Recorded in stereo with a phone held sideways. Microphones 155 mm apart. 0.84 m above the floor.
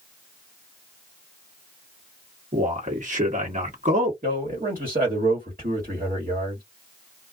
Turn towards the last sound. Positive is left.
turn(degrees=-60)  # may be behind; listen again after turning